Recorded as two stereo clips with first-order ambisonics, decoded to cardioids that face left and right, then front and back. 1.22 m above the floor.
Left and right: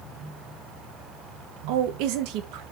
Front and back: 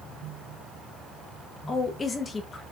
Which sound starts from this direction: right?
A woman speaking, at 1.7 s.